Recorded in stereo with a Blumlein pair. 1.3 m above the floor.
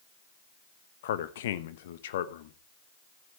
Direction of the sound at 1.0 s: 55° left.